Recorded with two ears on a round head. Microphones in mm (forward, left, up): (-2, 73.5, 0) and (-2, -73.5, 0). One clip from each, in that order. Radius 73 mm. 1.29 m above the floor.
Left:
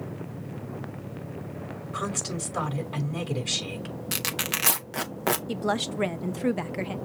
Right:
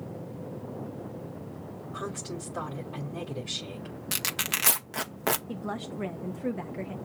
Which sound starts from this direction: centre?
Tearing paper, at 4.1 s.